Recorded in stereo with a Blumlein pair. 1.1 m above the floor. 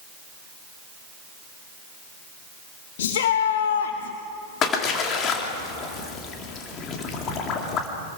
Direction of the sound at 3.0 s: 60° left.